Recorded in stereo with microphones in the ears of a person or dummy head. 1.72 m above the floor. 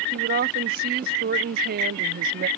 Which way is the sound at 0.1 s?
50° right (ahead or behind).